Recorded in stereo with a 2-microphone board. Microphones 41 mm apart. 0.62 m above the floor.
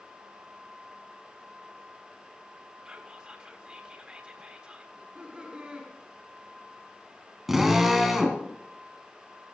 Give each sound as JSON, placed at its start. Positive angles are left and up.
{"t": 2.9, "sound": "whispering", "side_deg": -30, "distance_m": 1.4}
{"t": 4.9, "sound": "laughter", "side_deg": -25, "distance_m": 6.0}
{"t": 7.5, "sound": "a drill", "side_deg": -5, "distance_m": 3.0}